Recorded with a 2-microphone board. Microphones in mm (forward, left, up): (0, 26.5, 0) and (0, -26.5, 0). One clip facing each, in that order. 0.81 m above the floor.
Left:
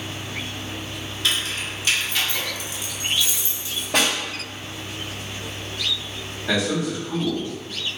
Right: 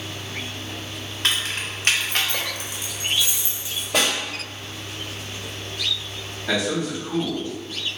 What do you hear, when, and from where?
1.2 s keys jangling: 50° right (ahead or behind), 0.9 m; by 3.8 s 10° right (ahead or behind), 1.0 m
3.9 s a snare drum: 55° left (ahead or behind), 1.9 m
6.5 s a man speaking: 5° left (ahead or behind), 1.9 m